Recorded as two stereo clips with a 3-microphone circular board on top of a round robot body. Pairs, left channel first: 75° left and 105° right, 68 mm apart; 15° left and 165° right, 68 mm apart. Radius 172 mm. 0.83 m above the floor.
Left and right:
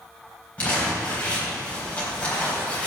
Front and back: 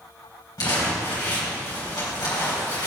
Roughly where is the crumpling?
Ahead.